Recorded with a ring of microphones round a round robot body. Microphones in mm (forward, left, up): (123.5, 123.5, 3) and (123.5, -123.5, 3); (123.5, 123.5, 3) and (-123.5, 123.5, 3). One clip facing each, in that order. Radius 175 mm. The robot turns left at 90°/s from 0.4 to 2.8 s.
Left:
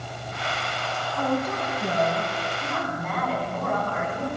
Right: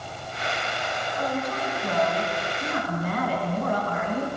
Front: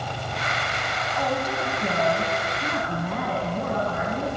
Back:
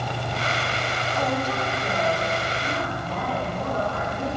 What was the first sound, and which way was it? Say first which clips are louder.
A woman speaking: left 4 dB, even; 105° left.